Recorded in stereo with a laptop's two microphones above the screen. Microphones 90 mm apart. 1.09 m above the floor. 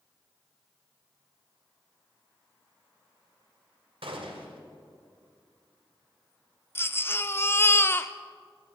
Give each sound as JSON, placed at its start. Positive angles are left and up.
{"t": 4.0, "sound": "a gunshot", "side_deg": -80, "distance_m": 2.0}
{"t": 6.8, "sound": "a baby crying", "side_deg": 25, "distance_m": 0.7}